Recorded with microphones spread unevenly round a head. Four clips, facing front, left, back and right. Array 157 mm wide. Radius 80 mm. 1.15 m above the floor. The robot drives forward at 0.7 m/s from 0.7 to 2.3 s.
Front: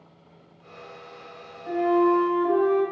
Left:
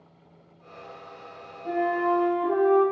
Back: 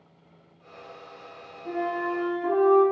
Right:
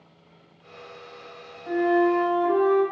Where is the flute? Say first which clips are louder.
Right 4 dB, front 8 dB; 100° left, 0.7 m; by 2.8 s 135° left, 0.9 m.